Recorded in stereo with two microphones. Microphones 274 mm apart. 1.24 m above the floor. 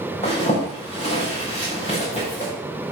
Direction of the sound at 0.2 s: 25° left (ahead or behind).